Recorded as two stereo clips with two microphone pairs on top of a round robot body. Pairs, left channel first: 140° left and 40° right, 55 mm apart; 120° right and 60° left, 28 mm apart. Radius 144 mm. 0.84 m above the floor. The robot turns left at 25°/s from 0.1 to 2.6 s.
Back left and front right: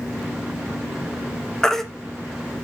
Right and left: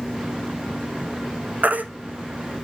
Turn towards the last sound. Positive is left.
turn(degrees=30)